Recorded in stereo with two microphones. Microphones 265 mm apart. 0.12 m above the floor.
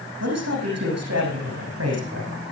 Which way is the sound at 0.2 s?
75° right (ahead or behind).